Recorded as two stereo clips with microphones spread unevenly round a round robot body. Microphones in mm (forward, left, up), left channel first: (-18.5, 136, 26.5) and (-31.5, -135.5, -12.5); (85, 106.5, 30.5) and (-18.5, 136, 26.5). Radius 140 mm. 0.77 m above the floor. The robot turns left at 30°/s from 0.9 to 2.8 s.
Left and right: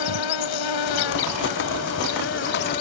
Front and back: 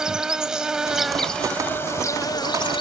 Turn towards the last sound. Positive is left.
turn(degrees=25)